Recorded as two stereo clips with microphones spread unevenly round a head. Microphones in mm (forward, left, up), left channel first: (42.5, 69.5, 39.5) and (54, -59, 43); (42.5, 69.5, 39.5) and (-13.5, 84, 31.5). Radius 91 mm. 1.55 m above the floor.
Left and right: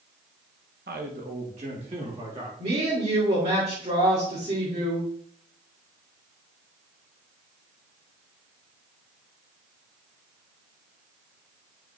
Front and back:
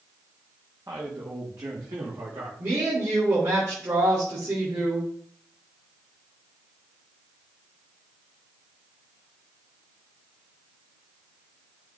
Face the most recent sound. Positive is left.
turn(degrees=-140)